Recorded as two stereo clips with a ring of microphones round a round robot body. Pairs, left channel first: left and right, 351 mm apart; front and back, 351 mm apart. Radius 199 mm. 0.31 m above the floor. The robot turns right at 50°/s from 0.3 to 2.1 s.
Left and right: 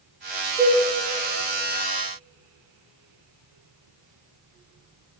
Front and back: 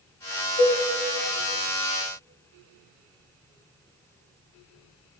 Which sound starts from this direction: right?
A cowbell, at 0.6 s.